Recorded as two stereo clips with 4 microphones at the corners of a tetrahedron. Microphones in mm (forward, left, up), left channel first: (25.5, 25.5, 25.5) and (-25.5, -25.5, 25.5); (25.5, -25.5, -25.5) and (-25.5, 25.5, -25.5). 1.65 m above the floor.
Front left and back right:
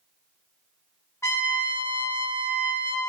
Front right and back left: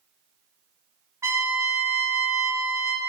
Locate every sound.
1.2 s a trumpet: 90° left, 1.4 m